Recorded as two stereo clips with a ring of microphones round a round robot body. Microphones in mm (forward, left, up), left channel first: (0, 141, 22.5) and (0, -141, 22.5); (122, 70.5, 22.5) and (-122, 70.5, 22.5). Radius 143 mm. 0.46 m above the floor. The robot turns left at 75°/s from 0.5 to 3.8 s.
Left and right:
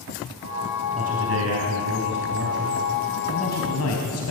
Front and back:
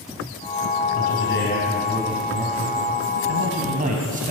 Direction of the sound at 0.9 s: 20° right.